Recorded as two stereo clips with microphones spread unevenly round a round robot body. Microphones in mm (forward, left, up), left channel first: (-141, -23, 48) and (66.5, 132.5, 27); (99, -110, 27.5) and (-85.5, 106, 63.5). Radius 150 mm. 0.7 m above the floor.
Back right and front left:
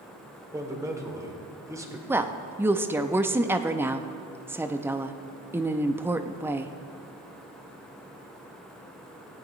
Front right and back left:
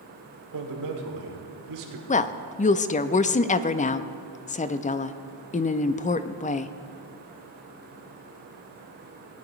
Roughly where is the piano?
No piano in this recording.